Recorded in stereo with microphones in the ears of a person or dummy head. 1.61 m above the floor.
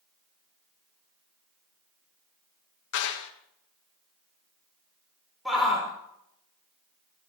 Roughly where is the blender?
No blender in this recording.